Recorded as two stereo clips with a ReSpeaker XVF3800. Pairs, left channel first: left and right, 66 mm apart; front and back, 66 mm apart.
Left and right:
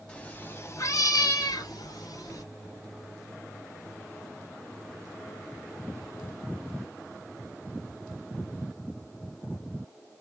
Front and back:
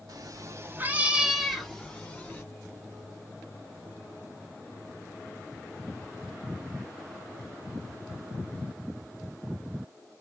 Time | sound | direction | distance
0.1 | a cat meowing | 165° left | 0.6 m